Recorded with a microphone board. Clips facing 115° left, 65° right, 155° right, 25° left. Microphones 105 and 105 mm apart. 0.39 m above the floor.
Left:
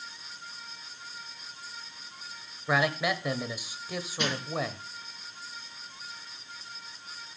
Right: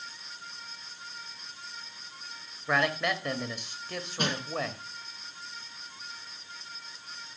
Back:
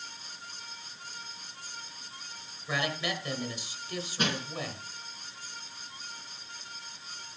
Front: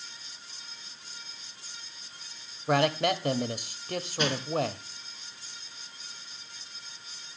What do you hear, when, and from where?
2.7 s a man speaking: 30° left, 1.3 m
4.2 s crushing: 110° right, 4.5 m